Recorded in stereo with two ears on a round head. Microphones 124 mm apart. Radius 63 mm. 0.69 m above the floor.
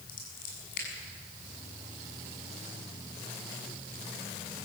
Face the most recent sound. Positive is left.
turn(degrees=75)  # may be behind; listen again after turning